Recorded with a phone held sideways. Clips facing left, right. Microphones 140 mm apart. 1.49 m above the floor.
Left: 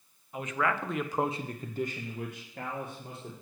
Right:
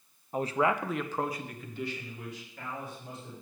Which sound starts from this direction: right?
A man speaking, at 0.3 s.